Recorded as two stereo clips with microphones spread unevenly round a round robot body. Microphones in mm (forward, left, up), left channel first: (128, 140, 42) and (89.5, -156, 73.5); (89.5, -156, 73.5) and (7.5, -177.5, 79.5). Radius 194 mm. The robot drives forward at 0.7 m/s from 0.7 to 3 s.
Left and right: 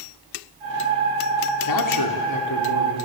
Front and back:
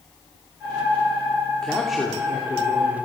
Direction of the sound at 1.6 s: 100° left.